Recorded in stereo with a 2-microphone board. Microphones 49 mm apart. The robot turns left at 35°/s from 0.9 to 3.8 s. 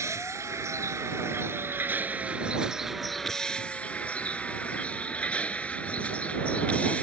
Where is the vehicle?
105° right; by 7.0 s 155° left.